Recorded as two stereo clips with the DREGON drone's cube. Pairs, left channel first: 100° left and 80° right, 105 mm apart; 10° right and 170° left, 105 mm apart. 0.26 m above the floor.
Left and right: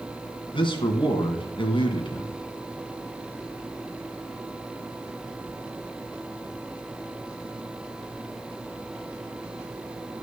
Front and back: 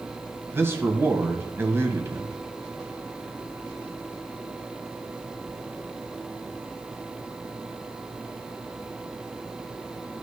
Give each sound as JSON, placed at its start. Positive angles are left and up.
{"t": 0.5, "sound": "a man speaking", "azimuth_deg": 110, "distance_m": 1.6}